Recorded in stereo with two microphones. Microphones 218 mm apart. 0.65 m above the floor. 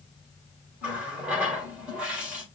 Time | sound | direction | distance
0.8 | a running tap | 5° right (ahead or behind) | 1.7 m